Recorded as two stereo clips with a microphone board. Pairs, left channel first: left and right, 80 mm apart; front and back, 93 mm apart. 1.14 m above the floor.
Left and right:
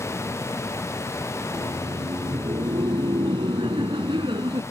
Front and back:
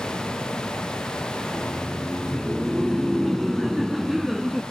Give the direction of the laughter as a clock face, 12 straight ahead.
3 o'clock.